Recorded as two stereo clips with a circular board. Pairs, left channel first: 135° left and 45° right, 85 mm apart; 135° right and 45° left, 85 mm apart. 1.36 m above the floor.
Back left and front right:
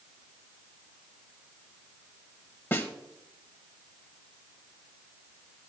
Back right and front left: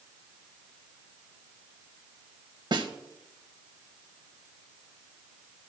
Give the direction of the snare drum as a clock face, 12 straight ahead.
10 o'clock.